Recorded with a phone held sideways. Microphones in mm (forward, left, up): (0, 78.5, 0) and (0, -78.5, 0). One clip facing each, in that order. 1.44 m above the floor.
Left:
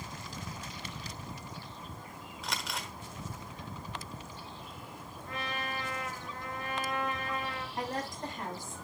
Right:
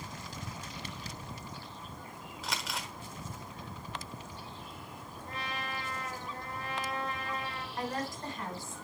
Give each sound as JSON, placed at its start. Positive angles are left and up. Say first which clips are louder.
{"t": 2.4, "sound": "crumpling", "louder": "even", "side_deg": 0, "distance_m": 1.2}
{"t": 5.3, "sound": "a trumpet", "louder": "left 2 dB", "side_deg": -35, "distance_m": 4.0}
{"t": 7.8, "sound": "a woman speaking", "louder": "right 1 dB", "side_deg": 20, "distance_m": 5.5}